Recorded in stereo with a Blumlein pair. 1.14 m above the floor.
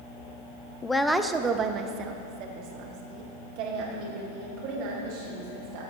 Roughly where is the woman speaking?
Ahead.